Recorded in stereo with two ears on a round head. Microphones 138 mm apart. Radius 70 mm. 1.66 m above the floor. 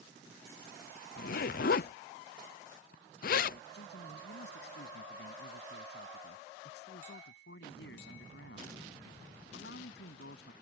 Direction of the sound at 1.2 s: 65° left (ahead or behind).